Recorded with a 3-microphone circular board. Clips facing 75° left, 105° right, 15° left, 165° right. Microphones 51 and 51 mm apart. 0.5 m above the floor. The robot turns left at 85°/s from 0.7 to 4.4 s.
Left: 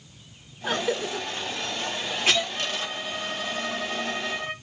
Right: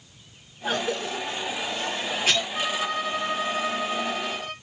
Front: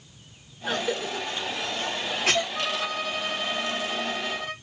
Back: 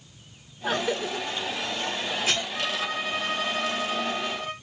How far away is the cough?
About 3 m.